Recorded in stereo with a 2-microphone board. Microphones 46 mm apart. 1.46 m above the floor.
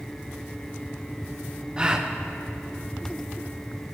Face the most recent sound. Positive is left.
turn(degrees=-20)  # may be behind; listen again after turning